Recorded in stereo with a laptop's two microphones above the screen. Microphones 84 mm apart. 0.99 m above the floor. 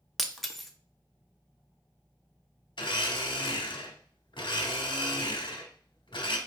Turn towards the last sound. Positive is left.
turn(degrees=70)  # may be behind; listen again after turning